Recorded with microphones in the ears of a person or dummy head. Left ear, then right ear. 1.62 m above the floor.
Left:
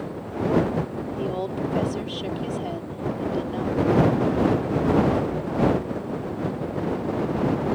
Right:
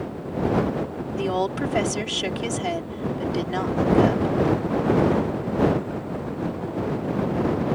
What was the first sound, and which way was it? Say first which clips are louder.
A woman speaking: right 4 dB; 65° right (ahead or behind).